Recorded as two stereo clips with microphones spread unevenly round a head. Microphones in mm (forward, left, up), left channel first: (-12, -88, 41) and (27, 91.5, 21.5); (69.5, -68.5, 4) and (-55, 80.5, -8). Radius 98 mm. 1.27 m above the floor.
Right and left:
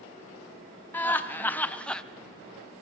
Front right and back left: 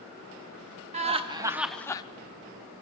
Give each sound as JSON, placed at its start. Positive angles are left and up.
{"t": 0.9, "sound": "laughter", "azimuth_deg": 175, "distance_m": 0.7}